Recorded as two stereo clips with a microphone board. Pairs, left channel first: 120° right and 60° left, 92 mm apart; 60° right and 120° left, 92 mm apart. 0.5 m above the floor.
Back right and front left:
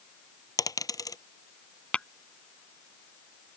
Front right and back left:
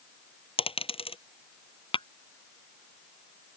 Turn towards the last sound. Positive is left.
turn(degrees=-40)